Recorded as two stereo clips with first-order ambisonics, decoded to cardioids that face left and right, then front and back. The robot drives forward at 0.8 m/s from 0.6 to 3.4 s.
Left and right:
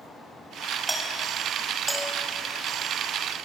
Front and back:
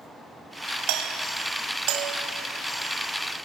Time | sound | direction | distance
0.9 | a doorbell | 170° right | 3 m